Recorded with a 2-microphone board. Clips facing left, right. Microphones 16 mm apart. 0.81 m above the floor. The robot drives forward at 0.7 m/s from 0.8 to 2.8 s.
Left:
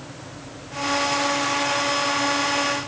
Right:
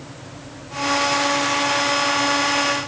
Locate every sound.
Only background noise.